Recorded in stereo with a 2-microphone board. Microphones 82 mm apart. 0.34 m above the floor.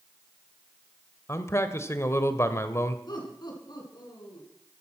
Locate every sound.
1.3 s a man speaking: 35° left (ahead or behind), 1.3 m
3.1 s laughter: 60° left (ahead or behind), 4.5 m